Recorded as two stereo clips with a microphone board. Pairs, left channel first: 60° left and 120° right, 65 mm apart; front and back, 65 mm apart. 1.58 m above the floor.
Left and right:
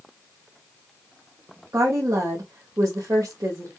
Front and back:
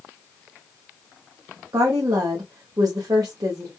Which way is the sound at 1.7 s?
160° right.